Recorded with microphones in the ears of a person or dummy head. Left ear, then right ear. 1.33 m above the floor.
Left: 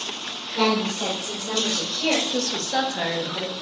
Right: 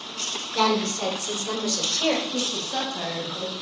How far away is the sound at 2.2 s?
About 1.8 m.